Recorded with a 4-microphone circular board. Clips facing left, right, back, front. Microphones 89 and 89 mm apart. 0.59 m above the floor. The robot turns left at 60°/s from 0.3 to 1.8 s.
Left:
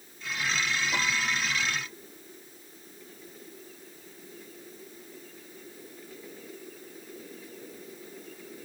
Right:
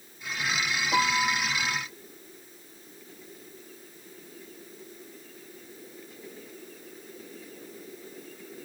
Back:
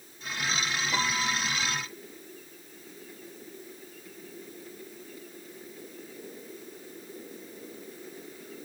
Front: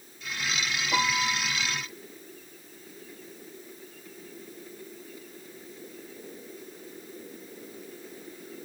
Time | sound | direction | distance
0.9 | a piano | 45° right | 4.5 m